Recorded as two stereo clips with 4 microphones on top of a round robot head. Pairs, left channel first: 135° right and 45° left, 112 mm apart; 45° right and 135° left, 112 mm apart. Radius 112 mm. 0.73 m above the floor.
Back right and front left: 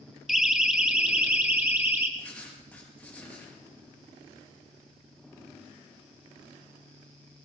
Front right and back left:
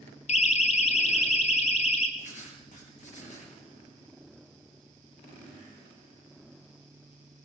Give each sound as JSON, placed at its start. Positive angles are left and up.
{"t": 0.3, "sound": "a siren", "azimuth_deg": -40, "distance_m": 2.0}
{"t": 2.2, "sound": "writing", "azimuth_deg": -55, "distance_m": 5.5}